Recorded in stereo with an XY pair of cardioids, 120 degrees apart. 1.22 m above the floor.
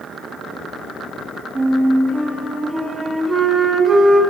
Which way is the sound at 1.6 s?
25° right.